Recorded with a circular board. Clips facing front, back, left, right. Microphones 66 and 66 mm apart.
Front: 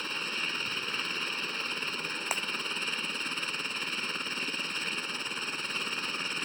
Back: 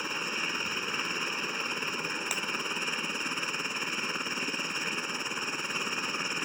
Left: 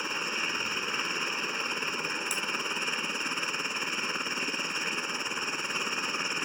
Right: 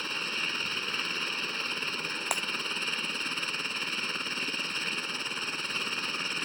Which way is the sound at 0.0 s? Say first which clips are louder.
Back 2 dB, left 2 dB; 130° left.